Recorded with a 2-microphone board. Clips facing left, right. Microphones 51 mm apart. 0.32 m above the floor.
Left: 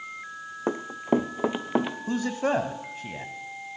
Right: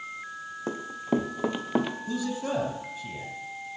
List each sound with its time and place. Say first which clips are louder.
0.7 s running footsteps: left 4 dB; 30° left (ahead or behind), 0.8 m; by 2.0 s 5° left (ahead or behind), 1.3 m
2.1 s a man speaking: left 4 dB; 50° left (ahead or behind), 1.6 m